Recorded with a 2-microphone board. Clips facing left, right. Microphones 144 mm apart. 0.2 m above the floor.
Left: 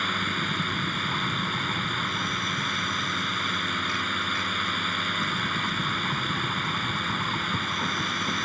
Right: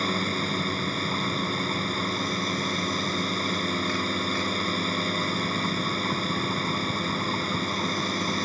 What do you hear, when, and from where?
0.0 s a drone: 35° right (ahead or behind)